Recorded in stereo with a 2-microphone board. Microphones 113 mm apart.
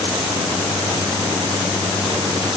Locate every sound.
Only background noise.